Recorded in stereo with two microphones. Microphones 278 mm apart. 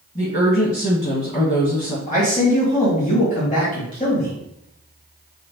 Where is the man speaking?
30° left (ahead or behind), 1.4 m.